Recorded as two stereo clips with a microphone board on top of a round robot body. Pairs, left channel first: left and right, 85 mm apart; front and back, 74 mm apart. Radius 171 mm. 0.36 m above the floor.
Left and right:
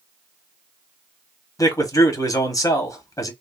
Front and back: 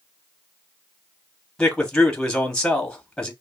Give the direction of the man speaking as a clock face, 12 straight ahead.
9 o'clock.